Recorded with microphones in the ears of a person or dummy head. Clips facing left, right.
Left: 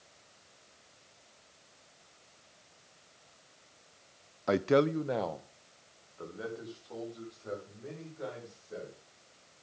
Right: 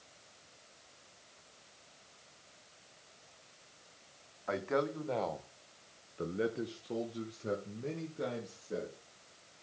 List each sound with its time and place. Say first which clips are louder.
4.5 s a man speaking: left 8 dB; 60° left (ahead or behind), 0.7 m; by 9.0 s 55° right (ahead or behind), 2.5 m